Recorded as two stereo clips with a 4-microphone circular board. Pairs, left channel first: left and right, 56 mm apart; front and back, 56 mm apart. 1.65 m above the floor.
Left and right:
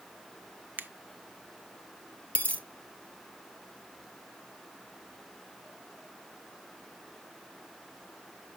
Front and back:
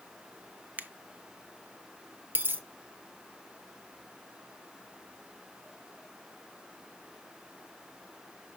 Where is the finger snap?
135° right, 0.5 m.